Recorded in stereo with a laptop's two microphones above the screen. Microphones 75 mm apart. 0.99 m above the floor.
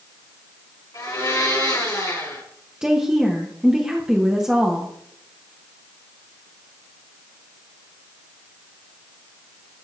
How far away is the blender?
About 4 m.